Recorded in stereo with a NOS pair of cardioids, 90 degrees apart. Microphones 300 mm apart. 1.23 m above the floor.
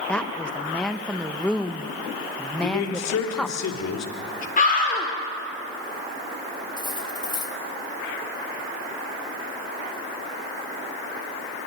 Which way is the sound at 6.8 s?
15° left.